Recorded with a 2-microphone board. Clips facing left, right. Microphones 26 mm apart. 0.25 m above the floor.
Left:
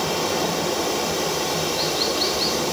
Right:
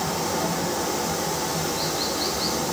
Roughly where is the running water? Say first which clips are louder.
Left 3 dB; left.